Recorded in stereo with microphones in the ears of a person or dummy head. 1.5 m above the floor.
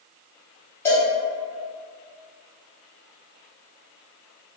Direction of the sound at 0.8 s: 15° left (ahead or behind).